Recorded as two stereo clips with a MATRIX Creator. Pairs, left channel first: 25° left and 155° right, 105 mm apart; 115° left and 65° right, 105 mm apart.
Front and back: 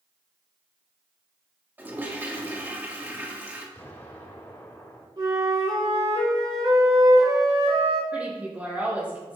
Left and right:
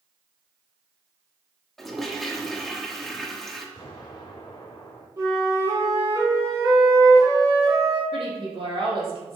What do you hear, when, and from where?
1.8 s a toilet flushing: 165° right, 1.0 m
3.8 s an explosion: 80° left, 2 m
5.2 s a flute: 120° right, 2.5 m
8.1 s a woman speaking: 80° right, 3 m